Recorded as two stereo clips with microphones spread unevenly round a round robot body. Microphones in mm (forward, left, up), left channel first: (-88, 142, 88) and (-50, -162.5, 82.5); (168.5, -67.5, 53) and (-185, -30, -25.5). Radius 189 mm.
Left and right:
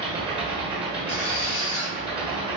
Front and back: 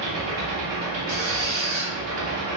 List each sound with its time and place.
0.0 s an engine running: 155° right, 1.4 m
1.1 s a squeak: 110° left, 1.8 m